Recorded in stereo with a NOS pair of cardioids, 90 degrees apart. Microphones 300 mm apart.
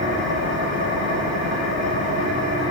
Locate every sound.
0.0 s an engine running: 65° left, 10 m